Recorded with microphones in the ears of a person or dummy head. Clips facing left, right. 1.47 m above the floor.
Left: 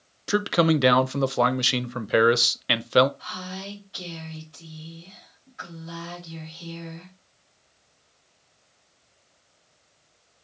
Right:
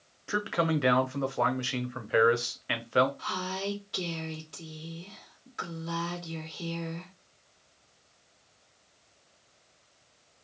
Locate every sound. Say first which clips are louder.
0.3 s a man speaking: left 8 dB; 50° left (ahead or behind), 0.5 m
3.2 s a woman speaking: right 2 dB; 60° right (ahead or behind), 1.5 m